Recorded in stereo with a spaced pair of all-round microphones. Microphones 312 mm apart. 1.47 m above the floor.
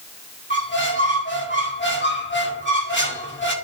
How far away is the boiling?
No boiling in this recording.